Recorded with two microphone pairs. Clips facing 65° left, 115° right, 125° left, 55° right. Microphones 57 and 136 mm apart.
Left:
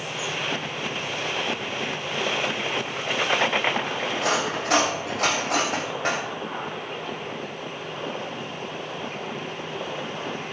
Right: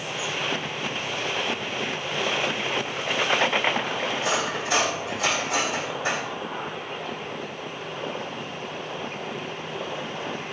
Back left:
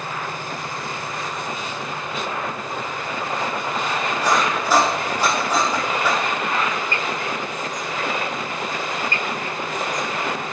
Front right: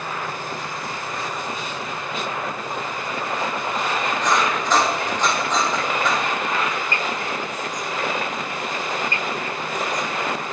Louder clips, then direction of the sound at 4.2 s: Left 4 dB, back left 2 dB; 45° left.